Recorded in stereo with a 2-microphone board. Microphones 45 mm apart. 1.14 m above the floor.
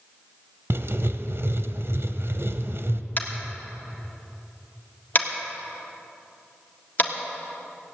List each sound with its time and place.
0.7 s writing: 60° right (ahead or behind), 0.9 m
3.2 s tapping: 40° left (ahead or behind), 1.7 m